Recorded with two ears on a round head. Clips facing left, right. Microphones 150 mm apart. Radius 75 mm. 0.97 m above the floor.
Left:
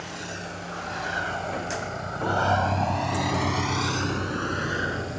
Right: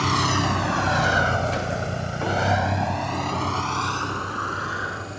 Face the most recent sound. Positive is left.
turn(degrees=25)  # may be behind; listen again after turning